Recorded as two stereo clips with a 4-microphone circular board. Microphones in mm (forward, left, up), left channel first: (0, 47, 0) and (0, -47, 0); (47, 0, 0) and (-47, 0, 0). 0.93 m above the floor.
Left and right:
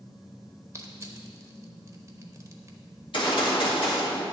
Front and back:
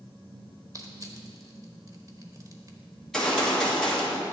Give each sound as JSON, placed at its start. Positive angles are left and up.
{"t": 0.7, "sound": "crushing", "azimuth_deg": -140, "distance_m": 0.9}
{"t": 3.0, "sound": "a gunshot", "azimuth_deg": 85, "distance_m": 1.7}